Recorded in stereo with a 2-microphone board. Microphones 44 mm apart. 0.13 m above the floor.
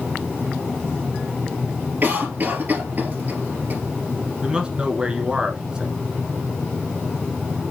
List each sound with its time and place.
2.0 s a cough: 45° right (ahead or behind), 2.5 m
4.4 s a man speaking: 20° right (ahead or behind), 1.3 m